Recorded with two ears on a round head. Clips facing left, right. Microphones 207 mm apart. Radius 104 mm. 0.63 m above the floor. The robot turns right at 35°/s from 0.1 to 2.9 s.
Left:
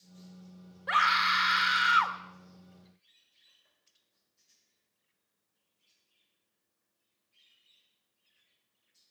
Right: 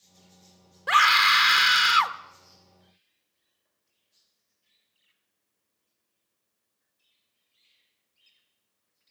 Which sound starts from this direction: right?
A scream, at 0.9 s.